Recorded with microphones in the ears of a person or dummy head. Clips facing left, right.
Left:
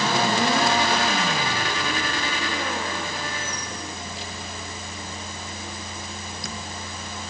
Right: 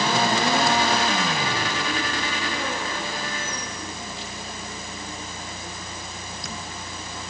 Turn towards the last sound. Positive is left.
No sound to turn to.